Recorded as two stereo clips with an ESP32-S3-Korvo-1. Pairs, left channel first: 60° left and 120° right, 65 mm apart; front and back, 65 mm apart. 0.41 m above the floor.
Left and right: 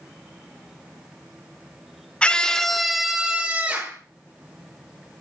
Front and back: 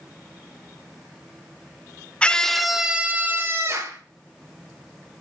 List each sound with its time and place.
2.2 s a scream: 30° left, 0.8 m; by 4.0 s 175° right, 1.1 m